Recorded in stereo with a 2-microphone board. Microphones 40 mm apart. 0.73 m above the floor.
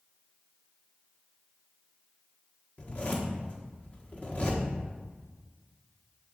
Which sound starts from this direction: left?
A zipper, at 2.8 s.